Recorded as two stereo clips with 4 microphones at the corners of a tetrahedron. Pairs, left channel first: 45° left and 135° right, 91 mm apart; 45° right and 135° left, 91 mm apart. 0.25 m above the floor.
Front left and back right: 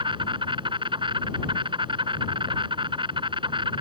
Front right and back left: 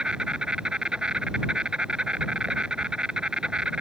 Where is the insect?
145° right.